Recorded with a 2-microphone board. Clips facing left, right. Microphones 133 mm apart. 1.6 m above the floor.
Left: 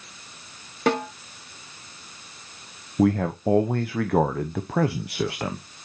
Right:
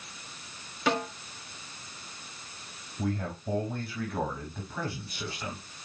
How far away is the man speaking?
About 0.7 m.